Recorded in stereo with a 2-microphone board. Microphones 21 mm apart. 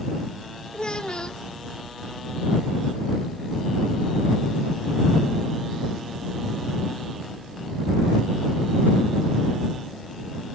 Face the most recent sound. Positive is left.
turn(degrees=40)  # may be behind; listen again after turning